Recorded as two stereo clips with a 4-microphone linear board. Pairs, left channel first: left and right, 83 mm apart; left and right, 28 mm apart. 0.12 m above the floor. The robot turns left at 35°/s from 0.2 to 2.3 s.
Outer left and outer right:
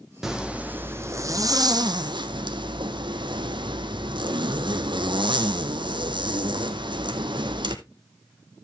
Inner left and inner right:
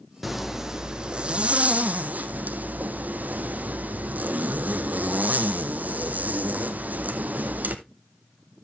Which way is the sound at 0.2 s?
5° right.